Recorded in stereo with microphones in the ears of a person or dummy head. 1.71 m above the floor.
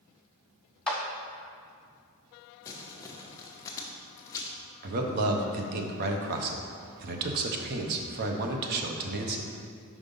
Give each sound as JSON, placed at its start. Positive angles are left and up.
{"t": 0.9, "sound": "a clap", "side_deg": 5, "distance_m": 0.8}
{"t": 2.6, "sound": "crumpling", "side_deg": 20, "distance_m": 0.8}
{"t": 4.8, "sound": "a man speaking", "side_deg": -55, "distance_m": 0.8}